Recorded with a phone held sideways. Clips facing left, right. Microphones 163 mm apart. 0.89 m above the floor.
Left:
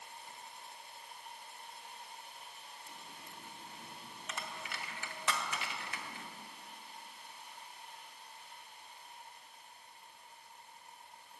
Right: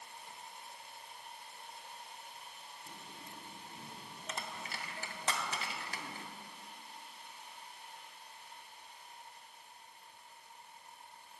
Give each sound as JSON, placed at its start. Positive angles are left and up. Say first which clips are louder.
{"t": 2.9, "sound": "a dropped coin", "louder": "right 3 dB", "side_deg": -35, "distance_m": 0.6}